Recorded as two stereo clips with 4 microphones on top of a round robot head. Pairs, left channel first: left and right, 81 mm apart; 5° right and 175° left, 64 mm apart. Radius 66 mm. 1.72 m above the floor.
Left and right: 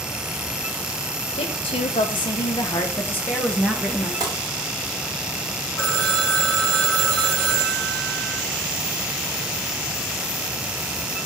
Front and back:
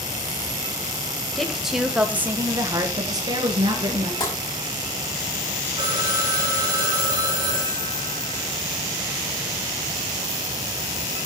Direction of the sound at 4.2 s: 30° right.